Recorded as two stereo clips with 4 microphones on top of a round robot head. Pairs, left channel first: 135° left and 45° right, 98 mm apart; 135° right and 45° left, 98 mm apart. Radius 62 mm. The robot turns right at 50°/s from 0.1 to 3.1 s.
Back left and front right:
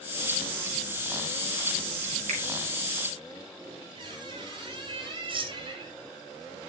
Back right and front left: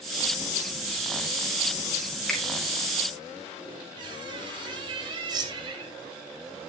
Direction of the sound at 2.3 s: 50° right.